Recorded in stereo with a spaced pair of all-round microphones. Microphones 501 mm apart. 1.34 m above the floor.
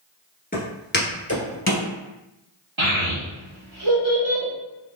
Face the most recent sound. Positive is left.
turn(degrees=-65)  # may be behind; listen again after turning